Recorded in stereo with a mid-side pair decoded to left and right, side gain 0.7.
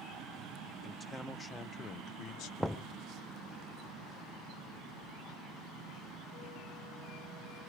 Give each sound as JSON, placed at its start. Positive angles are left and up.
{"t": 0.8, "sound": "a man speaking", "azimuth_deg": 10, "distance_m": 1.0}
{"t": 2.6, "sound": "knocking", "azimuth_deg": 0, "distance_m": 0.6}